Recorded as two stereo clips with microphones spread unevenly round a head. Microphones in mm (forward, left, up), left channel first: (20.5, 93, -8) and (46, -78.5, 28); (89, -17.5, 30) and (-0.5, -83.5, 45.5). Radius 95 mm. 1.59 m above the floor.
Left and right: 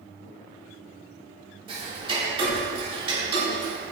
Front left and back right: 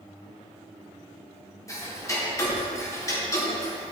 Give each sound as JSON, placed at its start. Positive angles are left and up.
{"t": 1.7, "sound": "ticking", "azimuth_deg": -25, "distance_m": 3.5}